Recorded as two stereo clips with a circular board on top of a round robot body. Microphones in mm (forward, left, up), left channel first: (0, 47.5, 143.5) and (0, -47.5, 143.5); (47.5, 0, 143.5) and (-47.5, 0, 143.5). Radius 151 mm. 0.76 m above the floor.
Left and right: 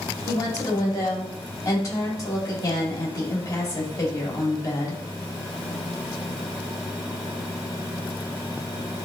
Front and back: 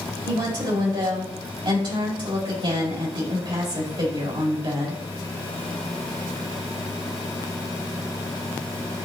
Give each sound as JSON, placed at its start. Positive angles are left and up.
{"t": 0.2, "sound": "a woman speaking", "azimuth_deg": 145, "distance_m": 3.0}